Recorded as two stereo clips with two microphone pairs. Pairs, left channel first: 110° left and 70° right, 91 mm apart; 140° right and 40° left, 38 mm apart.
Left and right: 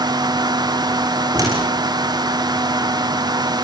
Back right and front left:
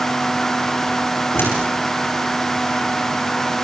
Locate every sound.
1.3 s a door slam: 125° right, 7.5 m